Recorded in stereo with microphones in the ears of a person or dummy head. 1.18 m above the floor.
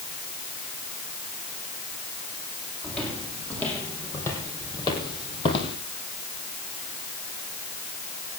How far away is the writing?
I don't hear writing.